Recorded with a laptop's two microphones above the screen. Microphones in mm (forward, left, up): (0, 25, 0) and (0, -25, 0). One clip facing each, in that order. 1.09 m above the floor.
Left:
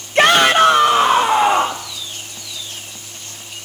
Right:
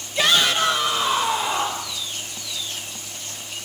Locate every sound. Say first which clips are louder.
0.1 s a shout: left 8 dB; 65° left (ahead or behind), 1.1 m; by 1.9 s 80° left, 2.5 m